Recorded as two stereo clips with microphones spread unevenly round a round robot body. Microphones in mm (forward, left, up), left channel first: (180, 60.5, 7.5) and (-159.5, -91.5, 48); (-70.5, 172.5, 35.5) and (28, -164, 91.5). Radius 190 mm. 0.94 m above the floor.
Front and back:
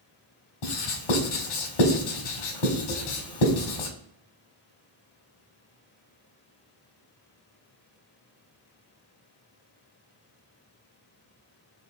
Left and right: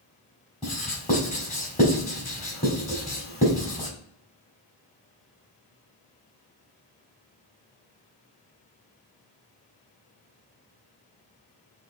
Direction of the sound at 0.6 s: 30° left.